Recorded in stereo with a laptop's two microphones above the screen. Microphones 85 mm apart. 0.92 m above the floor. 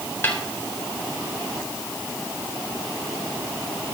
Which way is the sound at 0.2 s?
25° left (ahead or behind).